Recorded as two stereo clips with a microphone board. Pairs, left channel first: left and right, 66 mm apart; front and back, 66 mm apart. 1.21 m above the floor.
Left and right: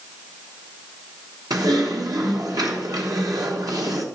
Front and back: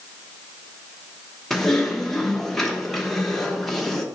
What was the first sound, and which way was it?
Typing on a keyboard, 85° right.